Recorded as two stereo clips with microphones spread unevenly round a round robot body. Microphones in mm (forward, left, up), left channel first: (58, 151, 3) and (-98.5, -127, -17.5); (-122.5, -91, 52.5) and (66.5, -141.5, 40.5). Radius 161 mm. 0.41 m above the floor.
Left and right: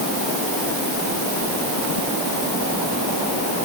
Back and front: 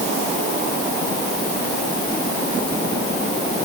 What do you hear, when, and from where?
Only background noise.